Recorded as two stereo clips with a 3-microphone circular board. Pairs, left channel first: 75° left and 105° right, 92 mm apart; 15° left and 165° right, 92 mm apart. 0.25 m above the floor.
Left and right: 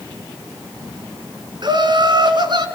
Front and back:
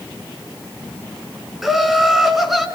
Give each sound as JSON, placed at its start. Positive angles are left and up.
{"t": 1.6, "sound": "laughter", "azimuth_deg": -75, "distance_m": 3.5}